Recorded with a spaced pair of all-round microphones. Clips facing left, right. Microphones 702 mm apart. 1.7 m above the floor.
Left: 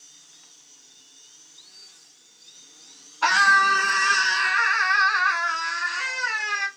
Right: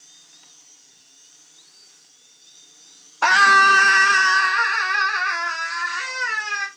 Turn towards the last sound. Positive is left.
turn(degrees=-45)  # may be behind; listen again after turning